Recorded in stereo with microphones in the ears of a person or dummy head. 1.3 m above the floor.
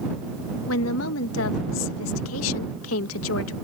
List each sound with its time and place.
0.7 s a woman speaking: 75° left (ahead or behind)